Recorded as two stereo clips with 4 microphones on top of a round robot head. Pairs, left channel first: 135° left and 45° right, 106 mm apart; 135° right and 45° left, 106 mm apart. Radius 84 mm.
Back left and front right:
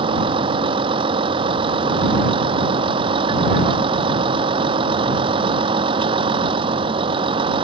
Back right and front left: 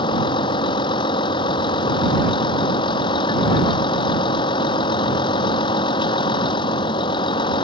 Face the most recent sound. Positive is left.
turn(degrees=-85)